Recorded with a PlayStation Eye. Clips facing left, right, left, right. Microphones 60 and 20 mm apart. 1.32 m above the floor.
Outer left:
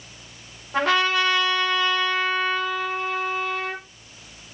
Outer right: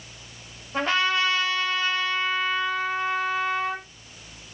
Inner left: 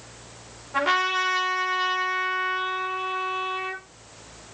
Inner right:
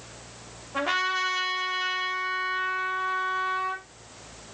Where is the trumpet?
85° left, 6 m.